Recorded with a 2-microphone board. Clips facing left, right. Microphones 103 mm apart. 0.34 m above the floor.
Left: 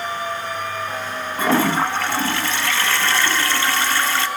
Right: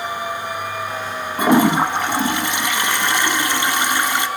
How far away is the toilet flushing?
About 0.6 m.